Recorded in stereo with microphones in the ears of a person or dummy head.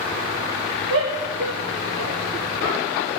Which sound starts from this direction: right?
A shout, at 0.9 s.